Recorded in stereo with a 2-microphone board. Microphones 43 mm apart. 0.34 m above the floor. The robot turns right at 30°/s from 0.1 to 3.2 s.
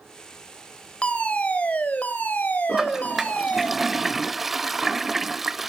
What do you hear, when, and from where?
1.0 s a fire alarm: 40° left, 2.5 m; by 3.7 s 105° left, 2.5 m
2.7 s a toilet flushing: 15° right (ahead or behind), 0.5 m; by 5.7 s 5° right (ahead or behind), 0.5 m